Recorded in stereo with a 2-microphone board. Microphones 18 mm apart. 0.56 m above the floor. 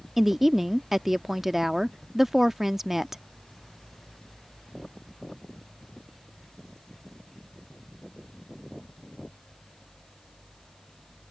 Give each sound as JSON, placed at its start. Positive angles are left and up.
{"t": 0.2, "sound": "a woman speaking", "side_deg": -20}